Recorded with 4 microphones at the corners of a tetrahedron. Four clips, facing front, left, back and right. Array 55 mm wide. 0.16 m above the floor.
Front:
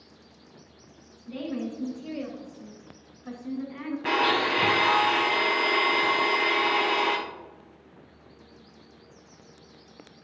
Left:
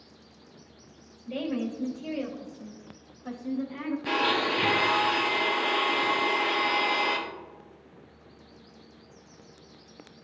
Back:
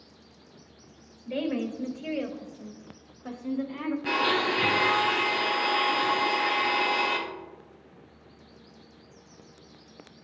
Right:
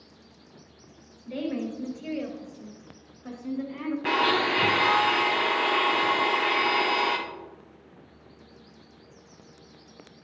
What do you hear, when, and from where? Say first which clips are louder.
1.3 s a woman speaking: even, back 3 dB; straight behind, 2.5 m; by 4.0 s 155° right, 4 m
4.0 s a blender: right 3 dB, front 3 dB; 60° right, 3 m